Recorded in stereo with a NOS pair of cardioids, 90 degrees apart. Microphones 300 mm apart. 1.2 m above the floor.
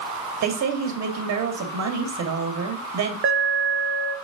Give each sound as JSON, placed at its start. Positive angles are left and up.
{"t": 0.4, "sound": "a woman speaking", "azimuth_deg": -55, "distance_m": 2.0}
{"t": 3.2, "sound": "an alarm", "azimuth_deg": -40, "distance_m": 1.1}